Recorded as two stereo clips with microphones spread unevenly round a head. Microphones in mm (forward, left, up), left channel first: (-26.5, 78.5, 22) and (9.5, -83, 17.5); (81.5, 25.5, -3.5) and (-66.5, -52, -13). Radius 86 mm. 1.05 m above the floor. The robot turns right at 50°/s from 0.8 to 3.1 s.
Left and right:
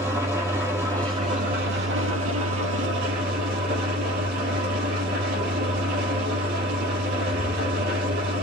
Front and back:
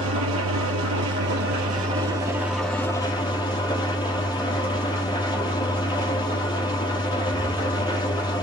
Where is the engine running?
155° right, 3.5 m; by 8.4 s 40° right, 3.5 m.